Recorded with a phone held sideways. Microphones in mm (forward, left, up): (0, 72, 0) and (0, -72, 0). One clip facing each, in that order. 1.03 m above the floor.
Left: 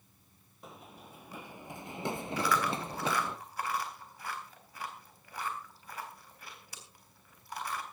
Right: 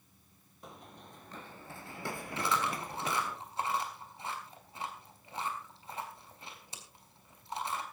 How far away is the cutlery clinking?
No cutlery clinking in this recording.